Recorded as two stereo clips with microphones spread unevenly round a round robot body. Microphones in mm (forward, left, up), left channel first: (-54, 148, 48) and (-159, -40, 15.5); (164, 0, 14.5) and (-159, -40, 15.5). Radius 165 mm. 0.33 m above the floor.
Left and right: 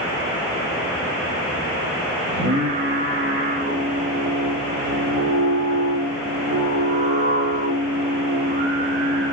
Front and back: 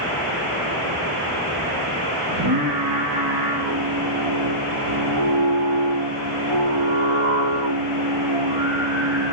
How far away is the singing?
About 5 m.